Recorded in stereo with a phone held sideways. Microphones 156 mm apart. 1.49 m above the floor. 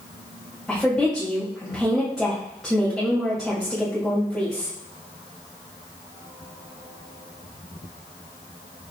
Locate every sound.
0.7 s a woman speaking: centre (ahead or behind), 2.5 m